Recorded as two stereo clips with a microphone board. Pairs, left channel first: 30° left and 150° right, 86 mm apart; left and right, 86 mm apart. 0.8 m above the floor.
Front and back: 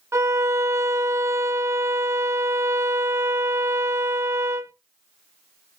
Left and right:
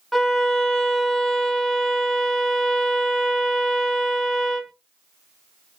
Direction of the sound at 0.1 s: 175° left.